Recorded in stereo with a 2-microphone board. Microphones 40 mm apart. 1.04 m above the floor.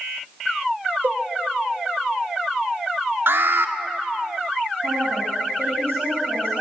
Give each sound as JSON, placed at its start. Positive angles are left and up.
{"t": 1.0, "sound": "a cowbell", "side_deg": -65, "distance_m": 2.0}
{"t": 3.3, "sound": "an alarm", "side_deg": -70, "distance_m": 2.0}
{"t": 4.8, "sound": "a woman speaking", "side_deg": -90, "distance_m": 5.0}